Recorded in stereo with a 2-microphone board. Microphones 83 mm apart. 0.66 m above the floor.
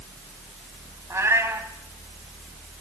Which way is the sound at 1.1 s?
30° right (ahead or behind).